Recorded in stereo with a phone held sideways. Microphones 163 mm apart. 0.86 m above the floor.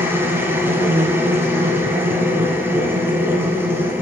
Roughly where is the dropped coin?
No dropped coin in this recording.